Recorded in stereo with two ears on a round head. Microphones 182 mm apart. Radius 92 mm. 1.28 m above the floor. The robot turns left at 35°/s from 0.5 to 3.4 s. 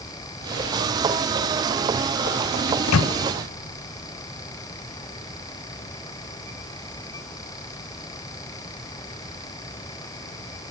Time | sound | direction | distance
2.7 | a microwave | 75° left (ahead or behind) | 0.5 m